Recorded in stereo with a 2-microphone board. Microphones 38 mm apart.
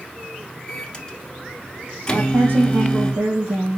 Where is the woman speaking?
55° right (ahead or behind), 3 m.